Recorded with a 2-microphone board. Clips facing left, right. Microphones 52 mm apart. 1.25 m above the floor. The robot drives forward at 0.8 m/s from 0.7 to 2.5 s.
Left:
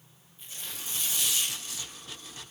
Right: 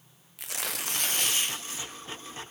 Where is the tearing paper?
75° right (ahead or behind), 0.7 m; by 2.0 s 30° right (ahead or behind), 1.3 m.